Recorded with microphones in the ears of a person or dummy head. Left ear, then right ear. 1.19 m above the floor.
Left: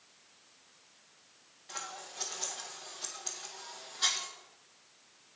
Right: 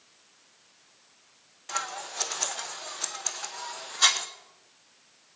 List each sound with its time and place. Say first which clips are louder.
1.7 s scissors: right 10 dB; 40° right (ahead or behind), 0.6 m